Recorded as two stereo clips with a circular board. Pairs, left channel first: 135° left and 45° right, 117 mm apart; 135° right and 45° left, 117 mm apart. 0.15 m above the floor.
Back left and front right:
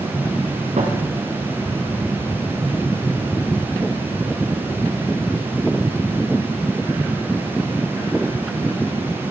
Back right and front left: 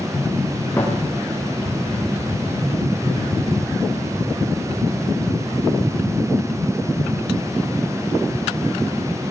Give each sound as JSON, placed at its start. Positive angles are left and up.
{"t": 0.8, "sound": "a thud", "azimuth_deg": -60, "distance_m": 8.0}